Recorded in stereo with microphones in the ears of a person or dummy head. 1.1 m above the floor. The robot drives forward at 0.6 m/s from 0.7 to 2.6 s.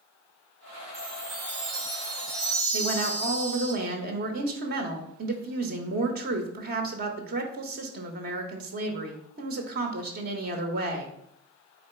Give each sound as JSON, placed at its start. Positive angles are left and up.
{"t": 0.9, "sound": "a chime", "side_deg": -45, "distance_m": 1.4}
{"t": 2.7, "sound": "a woman speaking", "side_deg": -60, "distance_m": 0.9}